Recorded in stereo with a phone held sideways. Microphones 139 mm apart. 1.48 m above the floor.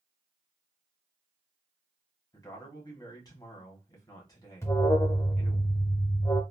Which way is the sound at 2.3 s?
30° left (ahead or behind).